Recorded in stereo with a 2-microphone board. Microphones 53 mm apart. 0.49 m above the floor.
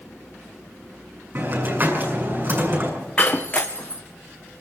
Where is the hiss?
45° right (ahead or behind), 6.5 m.